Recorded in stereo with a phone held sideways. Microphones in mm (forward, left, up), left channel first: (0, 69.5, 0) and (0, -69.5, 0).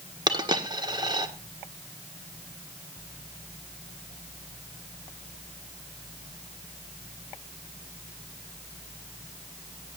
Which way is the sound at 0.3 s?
30° right (ahead or behind).